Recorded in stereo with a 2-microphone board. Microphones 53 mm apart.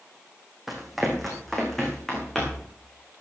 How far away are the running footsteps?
About 3.5 m.